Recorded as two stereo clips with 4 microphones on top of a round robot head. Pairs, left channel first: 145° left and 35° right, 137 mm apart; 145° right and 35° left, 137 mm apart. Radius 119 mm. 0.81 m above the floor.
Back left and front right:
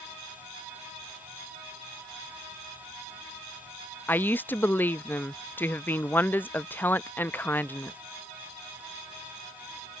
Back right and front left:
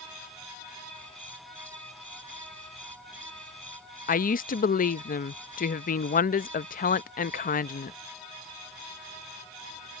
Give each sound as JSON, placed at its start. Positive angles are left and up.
{"t": 4.1, "sound": "a woman speaking", "azimuth_deg": -140}